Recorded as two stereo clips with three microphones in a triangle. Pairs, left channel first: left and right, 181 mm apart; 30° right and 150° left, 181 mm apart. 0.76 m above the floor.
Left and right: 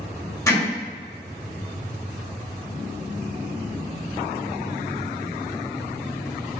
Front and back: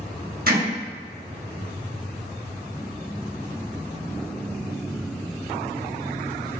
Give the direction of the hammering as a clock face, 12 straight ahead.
7 o'clock.